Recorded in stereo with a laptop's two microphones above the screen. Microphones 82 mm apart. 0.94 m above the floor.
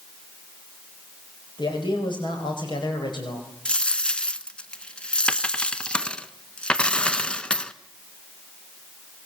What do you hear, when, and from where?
1.6 s a man speaking: 65° left (ahead or behind), 5 m
3.6 s a dropped coin: 15° left (ahead or behind), 1.1 m